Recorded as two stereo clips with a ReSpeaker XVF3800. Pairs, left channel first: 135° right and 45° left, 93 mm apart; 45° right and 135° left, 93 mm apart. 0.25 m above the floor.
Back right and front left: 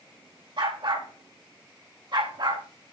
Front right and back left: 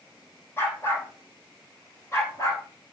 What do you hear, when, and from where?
0.6 s a dog barking: 20° left, 4.5 m; by 2.6 s 10° left, 5.5 m